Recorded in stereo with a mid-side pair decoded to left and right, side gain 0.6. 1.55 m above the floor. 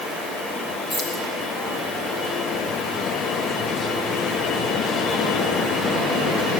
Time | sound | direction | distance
0.9 | keys jangling | 40° left | 6 m